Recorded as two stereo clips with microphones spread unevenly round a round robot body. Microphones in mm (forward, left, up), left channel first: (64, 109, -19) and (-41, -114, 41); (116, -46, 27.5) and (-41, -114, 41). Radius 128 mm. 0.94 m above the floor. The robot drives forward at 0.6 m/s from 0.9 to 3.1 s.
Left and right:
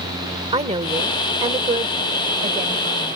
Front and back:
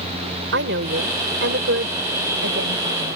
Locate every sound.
0.5 s a woman speaking: 175° left; by 3.2 s straight behind